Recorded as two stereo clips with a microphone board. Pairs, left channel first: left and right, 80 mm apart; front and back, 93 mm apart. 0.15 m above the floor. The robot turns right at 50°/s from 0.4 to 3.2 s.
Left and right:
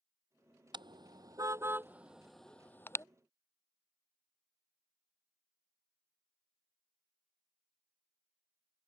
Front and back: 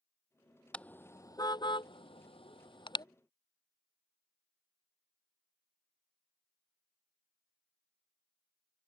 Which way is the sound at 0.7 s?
80° right.